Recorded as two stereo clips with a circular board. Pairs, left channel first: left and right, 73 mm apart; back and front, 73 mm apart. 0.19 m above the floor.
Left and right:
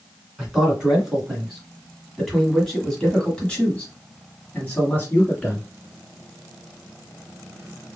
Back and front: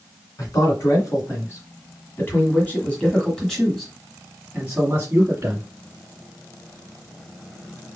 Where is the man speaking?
165° right, 2 m; by 5.7 s 40° left, 1.8 m.